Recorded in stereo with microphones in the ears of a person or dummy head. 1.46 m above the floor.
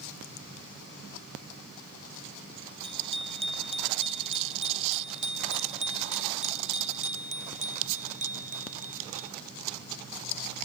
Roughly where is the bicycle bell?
Right.